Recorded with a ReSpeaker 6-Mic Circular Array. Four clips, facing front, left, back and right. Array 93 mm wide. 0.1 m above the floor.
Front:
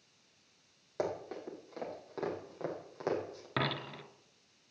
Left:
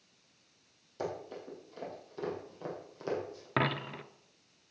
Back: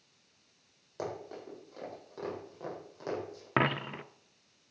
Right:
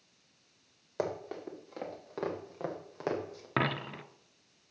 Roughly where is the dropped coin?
Behind.